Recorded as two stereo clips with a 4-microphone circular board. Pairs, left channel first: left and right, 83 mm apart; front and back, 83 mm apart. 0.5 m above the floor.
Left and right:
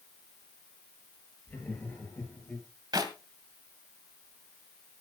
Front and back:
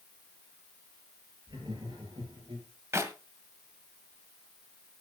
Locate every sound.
1.5 s laughter: 155° left, 9.5 m; by 2.7 s 160° left, 9.5 m
2.9 s a clap: 125° right, 2 m